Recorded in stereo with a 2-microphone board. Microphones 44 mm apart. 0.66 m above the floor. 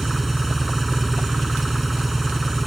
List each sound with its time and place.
0.0 s an engine running: centre (ahead or behind)